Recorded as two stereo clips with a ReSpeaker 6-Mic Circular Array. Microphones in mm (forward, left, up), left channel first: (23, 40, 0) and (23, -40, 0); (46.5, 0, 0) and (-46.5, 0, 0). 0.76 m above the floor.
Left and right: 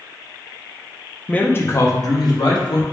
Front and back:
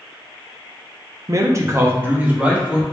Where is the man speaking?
160° left, 0.6 m; by 2.8 s 100° left, 1.2 m.